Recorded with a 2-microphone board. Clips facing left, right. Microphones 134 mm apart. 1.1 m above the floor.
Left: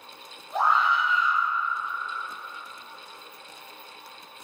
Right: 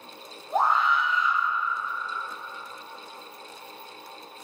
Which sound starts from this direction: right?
A scream, at 0.5 s.